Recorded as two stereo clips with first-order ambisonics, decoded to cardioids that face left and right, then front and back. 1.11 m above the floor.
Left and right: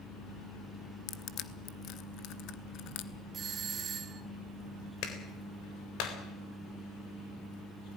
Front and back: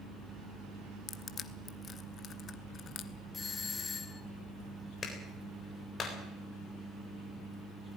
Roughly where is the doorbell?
Ahead right.